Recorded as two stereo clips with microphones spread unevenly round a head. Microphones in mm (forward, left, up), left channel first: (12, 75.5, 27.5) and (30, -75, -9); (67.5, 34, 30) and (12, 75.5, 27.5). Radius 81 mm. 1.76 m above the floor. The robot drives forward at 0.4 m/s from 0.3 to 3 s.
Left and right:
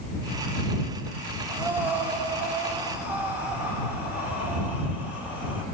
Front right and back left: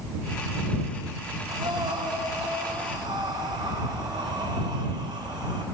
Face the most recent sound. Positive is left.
turn(degrees=-170)